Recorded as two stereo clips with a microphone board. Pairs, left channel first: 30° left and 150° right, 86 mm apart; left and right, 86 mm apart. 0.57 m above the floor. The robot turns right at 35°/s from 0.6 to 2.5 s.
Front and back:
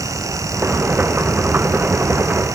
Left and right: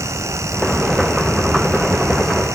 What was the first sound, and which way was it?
Only background noise.